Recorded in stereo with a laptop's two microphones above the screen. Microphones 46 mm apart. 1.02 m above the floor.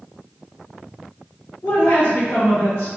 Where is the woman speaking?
65° left (ahead or behind), 1.4 m.